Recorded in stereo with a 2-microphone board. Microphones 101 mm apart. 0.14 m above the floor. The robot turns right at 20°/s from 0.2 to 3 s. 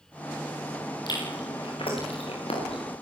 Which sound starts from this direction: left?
Chewing, at 1.1 s.